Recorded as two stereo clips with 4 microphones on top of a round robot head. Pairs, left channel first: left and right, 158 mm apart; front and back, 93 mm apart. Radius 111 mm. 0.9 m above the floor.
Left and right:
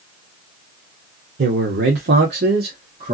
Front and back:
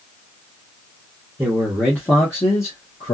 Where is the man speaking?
100° right, 1.1 m; by 3.1 s 50° right, 1.7 m.